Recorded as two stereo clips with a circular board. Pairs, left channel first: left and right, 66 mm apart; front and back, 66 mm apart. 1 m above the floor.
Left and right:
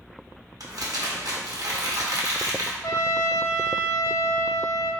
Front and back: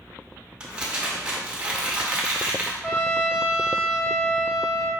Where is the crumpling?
110° right, 0.9 m.